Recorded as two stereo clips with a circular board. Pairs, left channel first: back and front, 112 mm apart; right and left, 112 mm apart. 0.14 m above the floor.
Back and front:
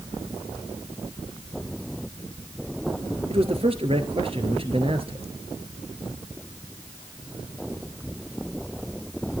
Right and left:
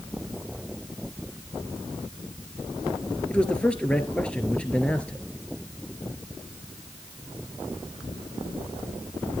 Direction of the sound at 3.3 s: 10° right.